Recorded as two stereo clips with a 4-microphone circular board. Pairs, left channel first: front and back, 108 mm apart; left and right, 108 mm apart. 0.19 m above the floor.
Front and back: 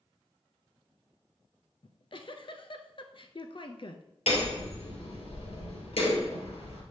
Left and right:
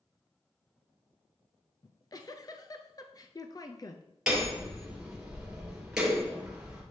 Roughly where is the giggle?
Ahead left.